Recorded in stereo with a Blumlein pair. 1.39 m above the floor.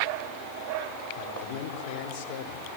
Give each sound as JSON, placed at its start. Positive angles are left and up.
{"t": 1.2, "sound": "a man speaking", "azimuth_deg": 45, "distance_m": 4.0}